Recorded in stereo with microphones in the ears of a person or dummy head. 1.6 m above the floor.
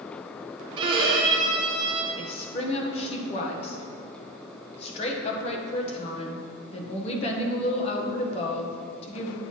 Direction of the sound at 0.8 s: 25° right (ahead or behind).